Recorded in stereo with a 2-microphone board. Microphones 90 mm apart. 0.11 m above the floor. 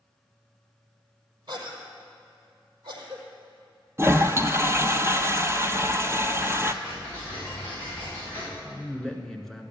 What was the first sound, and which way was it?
A cough, 45° right (ahead or behind).